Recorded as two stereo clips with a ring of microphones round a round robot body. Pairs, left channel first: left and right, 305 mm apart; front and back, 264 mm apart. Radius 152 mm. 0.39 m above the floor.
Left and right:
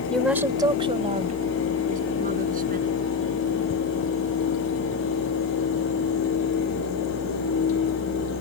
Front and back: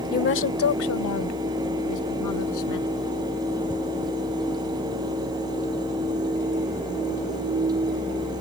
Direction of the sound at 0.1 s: 5° left.